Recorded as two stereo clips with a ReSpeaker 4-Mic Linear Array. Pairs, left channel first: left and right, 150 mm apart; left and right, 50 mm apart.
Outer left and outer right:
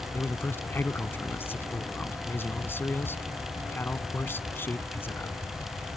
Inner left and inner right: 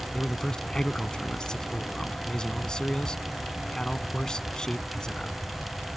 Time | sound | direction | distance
0.1 | a man speaking | 15° left (ahead or behind) | ?